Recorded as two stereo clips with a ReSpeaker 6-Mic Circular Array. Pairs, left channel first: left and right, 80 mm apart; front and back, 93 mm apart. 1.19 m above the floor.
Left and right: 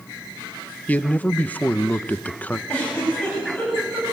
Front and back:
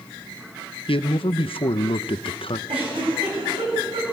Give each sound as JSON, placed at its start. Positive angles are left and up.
{"t": 0.9, "sound": "a man speaking", "azimuth_deg": 20, "distance_m": 0.7}
{"t": 2.7, "sound": "a giggle", "azimuth_deg": 165, "distance_m": 8.5}